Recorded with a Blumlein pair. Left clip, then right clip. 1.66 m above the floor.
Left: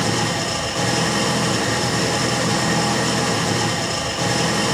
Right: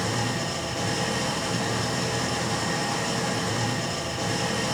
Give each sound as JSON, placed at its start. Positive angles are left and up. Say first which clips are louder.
{"t": 0.0, "sound": "an engine running", "louder": "left 7 dB", "azimuth_deg": 65, "distance_m": 1.3}